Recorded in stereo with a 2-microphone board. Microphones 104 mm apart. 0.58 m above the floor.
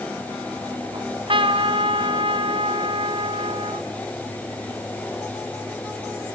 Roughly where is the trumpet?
Right.